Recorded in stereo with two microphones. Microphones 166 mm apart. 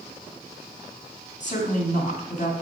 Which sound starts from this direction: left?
A woman speaking, at 1.4 s.